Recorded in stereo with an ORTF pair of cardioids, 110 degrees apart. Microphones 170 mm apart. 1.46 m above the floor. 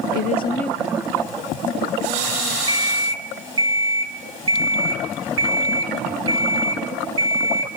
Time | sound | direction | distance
0.1 | a woman speaking | 70° left | 0.6 m
2.7 | an alarm clock | 30° right | 2.5 m